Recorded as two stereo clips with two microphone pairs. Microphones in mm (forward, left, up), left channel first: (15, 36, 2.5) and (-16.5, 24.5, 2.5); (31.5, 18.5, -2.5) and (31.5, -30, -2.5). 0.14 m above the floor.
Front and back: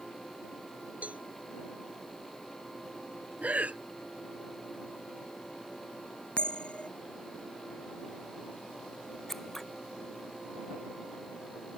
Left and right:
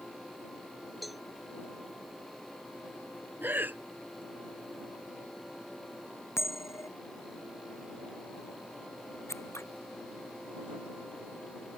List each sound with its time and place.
1.0 s a cowbell: straight behind
3.4 s breathing: 130° right
6.4 s a bell: 75° left
9.3 s scissors: 105° left